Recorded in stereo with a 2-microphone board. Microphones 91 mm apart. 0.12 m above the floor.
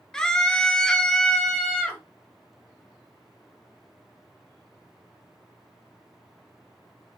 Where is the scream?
5° left (ahead or behind), 1.4 m; by 2.0 s 10° left (ahead or behind), 2.5 m.